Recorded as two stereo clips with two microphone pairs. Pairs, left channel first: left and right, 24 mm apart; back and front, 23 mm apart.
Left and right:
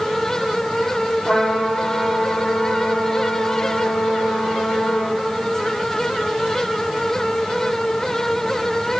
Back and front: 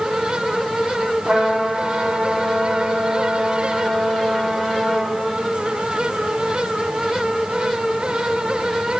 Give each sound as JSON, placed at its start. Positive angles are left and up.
{"t": 1.2, "sound": "a trumpet", "azimuth_deg": 65, "distance_m": 5.5}